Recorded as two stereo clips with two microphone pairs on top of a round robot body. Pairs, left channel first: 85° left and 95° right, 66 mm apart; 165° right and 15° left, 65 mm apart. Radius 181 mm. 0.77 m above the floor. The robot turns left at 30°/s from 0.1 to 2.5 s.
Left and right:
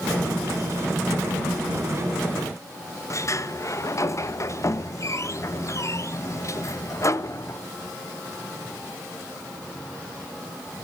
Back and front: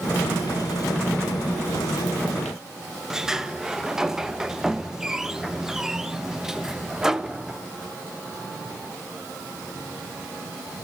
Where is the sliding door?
110° left, 1.2 m.